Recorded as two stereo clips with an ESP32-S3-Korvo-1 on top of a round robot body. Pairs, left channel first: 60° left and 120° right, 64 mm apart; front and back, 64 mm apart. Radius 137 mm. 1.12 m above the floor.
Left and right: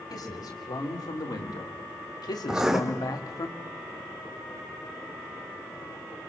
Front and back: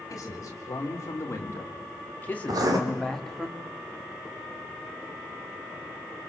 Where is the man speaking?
40° left, 4.5 m; by 3.5 s 90° left, 2.5 m.